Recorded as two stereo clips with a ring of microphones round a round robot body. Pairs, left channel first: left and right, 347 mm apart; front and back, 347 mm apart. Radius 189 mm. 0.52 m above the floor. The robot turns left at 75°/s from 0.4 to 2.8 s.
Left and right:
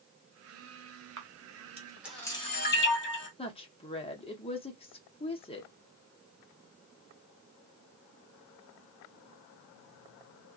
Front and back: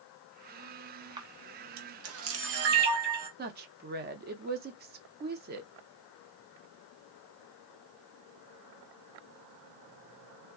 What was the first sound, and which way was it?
A camera shutter, 110° right.